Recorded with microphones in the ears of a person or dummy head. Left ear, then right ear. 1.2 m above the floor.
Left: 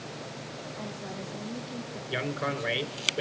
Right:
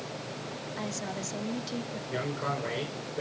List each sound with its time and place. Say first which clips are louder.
0.8 s a woman speaking: right 5 dB; 75° right (ahead or behind), 3 m
2.1 s a man speaking: left 2 dB; 80° left, 4.5 m